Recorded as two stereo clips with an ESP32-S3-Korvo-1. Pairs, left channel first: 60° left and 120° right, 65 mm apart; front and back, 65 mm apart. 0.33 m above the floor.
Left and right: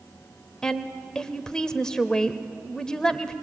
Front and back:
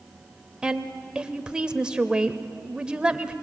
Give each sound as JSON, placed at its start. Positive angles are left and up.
{"t": 0.6, "sound": "a woman speaking", "azimuth_deg": 125, "distance_m": 1.0}